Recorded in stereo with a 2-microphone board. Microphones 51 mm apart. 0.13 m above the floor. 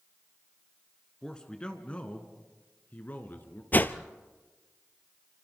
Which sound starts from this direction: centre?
A man speaking, at 1.2 s.